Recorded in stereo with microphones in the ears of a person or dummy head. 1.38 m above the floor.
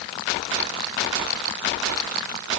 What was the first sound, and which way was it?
Only background noise.